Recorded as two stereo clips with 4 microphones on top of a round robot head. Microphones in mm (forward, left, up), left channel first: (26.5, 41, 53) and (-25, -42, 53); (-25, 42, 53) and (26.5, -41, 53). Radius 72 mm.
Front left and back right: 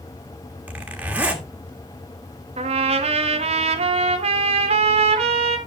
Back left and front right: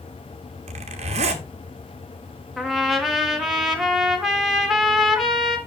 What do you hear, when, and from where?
0.7 s a zipper: 45° right, 1.5 m
2.6 s a trumpet: 145° right, 1.5 m